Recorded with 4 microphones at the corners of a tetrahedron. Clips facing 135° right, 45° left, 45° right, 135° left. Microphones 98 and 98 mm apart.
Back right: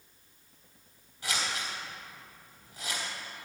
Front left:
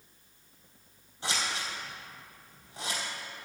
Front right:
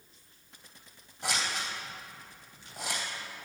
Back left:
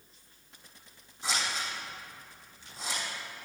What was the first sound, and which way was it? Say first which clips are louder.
Scissors: front left 1 dB, even; 20° right.